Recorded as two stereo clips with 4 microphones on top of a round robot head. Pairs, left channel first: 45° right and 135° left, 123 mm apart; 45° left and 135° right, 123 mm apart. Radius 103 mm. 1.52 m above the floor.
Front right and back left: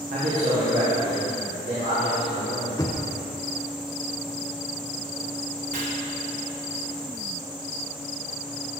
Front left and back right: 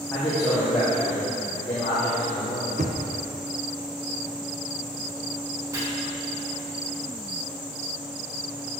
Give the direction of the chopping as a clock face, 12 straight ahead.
7 o'clock.